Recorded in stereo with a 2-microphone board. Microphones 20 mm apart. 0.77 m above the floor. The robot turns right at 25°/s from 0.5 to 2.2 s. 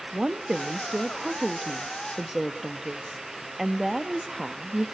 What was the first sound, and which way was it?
A woman speaking, 60° right.